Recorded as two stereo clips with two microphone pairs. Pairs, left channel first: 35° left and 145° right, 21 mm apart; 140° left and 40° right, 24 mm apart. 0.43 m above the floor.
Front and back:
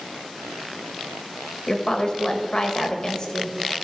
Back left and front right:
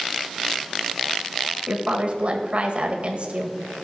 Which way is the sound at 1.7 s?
15° right.